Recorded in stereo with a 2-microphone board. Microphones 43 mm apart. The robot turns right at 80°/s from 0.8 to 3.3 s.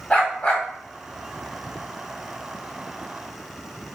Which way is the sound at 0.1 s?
30° left (ahead or behind).